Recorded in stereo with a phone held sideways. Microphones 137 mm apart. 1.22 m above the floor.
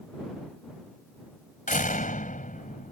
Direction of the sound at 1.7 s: 75° left (ahead or behind).